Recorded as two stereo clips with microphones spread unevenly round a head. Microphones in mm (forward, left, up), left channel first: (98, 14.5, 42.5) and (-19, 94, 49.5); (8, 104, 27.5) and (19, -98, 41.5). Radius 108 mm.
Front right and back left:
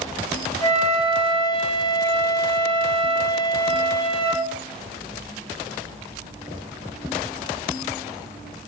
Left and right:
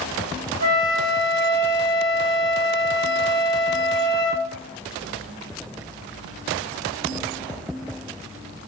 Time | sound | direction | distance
0.6 | a flute | 100° right | 1.8 m